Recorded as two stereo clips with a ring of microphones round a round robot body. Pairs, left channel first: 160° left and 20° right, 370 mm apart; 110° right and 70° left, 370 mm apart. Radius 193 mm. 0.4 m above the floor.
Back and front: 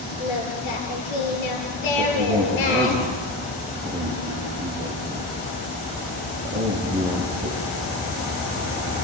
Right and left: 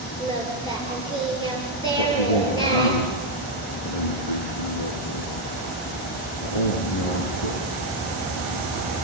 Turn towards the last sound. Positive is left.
turn(degrees=-100)